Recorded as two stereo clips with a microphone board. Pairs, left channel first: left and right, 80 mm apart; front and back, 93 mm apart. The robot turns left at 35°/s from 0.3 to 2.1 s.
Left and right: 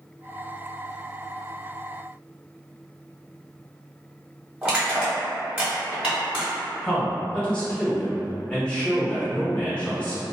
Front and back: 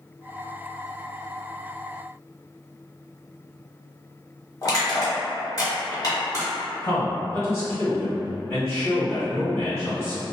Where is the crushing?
25° right, 1.2 m.